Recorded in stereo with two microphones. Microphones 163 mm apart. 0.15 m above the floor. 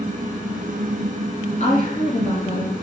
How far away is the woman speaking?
About 1.9 m.